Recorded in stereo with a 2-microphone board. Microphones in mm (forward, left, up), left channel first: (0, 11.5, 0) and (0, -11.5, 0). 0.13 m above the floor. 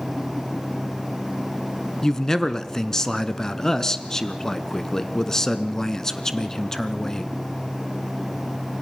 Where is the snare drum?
No snare drum in this recording.